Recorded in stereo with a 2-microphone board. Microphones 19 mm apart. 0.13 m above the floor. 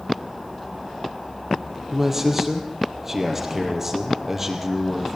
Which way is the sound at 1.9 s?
15° right (ahead or behind).